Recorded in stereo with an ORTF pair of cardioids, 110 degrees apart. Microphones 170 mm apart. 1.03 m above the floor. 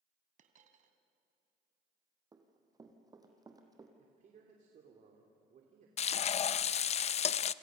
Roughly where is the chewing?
I don't hear chewing.